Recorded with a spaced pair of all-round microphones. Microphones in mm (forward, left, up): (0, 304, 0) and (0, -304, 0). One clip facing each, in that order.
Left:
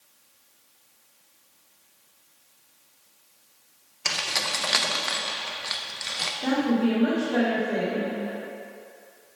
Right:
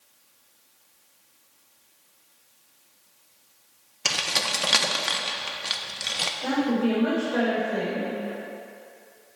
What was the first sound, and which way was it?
Keys jangling, 60° right (ahead or behind).